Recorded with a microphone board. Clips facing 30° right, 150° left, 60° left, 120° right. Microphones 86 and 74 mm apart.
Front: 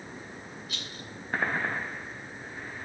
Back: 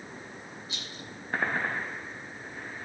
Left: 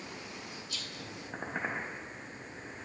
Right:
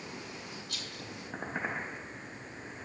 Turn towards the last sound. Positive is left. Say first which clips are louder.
# front 1 dB, even
turn(degrees=-145)